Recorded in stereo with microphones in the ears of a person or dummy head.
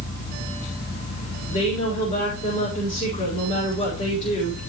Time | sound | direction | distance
1.5 | a woman speaking | 30° left (ahead or behind) | 5 m